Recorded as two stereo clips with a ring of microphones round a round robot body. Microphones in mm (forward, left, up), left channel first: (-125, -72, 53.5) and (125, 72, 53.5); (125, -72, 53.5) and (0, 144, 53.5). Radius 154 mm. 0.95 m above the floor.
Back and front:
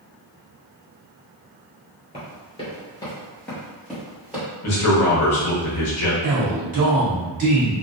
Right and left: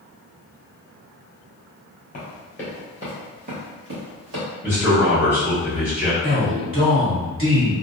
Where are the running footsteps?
100° right, 1.0 m; by 4.5 s 115° left, 1.4 m.